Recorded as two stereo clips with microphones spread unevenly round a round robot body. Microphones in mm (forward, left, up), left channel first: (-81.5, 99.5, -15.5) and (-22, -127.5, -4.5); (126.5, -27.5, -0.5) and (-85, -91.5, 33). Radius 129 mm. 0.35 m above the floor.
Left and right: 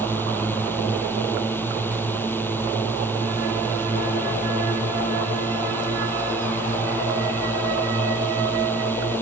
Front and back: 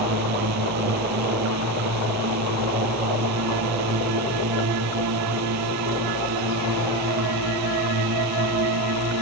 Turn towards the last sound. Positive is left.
turn(degrees=-175)